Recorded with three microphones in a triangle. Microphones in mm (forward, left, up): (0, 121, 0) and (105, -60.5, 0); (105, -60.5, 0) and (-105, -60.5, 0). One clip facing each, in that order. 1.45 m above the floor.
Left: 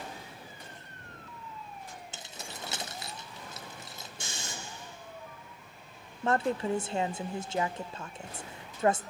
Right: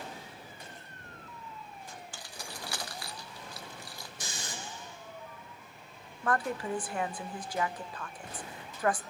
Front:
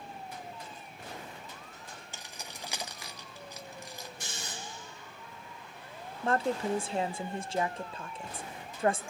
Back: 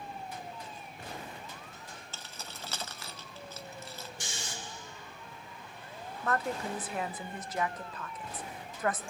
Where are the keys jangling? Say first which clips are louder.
Left 1 dB, even; 65° left, 0.7 m.